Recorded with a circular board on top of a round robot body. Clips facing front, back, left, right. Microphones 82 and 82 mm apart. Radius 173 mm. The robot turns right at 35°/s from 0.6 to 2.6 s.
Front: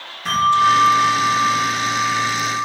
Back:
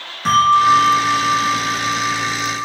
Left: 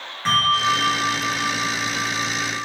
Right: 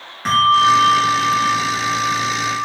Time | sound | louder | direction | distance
0.2 | a bell | back 3 dB, right 7 dB | 160° right | 3.5 m